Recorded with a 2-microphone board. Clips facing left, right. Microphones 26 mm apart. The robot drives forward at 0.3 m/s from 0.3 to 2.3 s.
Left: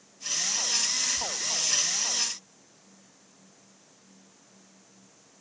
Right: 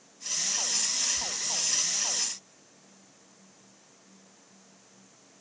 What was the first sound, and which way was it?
Whispering, 20° right (ahead or behind).